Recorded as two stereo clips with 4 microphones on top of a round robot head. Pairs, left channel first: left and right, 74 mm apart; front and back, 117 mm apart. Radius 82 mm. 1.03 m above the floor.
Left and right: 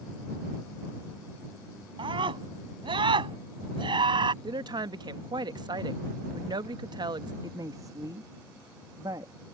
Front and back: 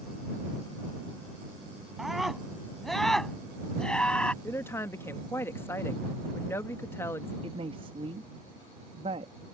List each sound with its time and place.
2.0 s a scream: 90° right; by 4.3 s 85° right
4.4 s a woman speaking: 70° right
7.4 s a woman speaking: 135° right